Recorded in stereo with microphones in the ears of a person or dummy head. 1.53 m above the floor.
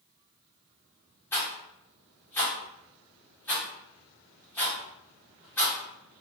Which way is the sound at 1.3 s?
10° left (ahead or behind).